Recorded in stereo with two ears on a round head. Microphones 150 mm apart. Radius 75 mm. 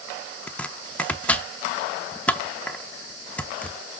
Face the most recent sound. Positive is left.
turn(degrees=10)  # may be behind; listen again after turning